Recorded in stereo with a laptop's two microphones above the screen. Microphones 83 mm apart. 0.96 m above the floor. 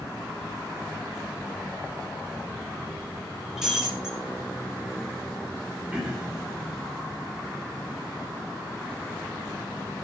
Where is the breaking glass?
10° right (ahead or behind), 7 m.